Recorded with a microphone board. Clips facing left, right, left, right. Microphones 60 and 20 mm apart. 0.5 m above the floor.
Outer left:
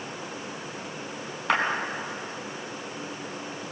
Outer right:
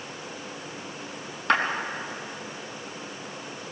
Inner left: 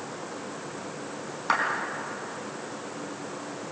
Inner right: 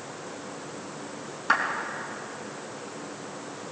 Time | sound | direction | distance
1.5 | a clap | 5° left (ahead or behind) | 4.5 m